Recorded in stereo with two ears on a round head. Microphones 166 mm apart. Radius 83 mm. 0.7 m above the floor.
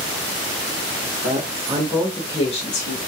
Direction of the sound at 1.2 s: 45° right (ahead or behind).